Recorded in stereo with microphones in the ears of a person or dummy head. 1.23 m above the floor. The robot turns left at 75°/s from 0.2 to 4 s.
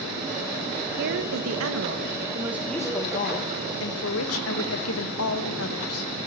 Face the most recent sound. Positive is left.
turn(degrees=80)